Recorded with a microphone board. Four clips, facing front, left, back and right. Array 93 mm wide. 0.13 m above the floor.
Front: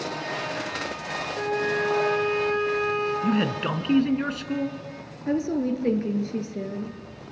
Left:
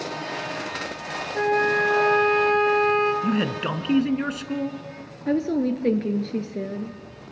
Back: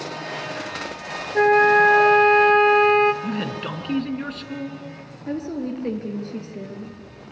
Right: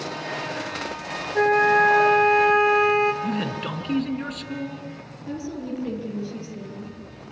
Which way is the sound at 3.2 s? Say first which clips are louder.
Left 3 dB, front 3 dB; 60° left.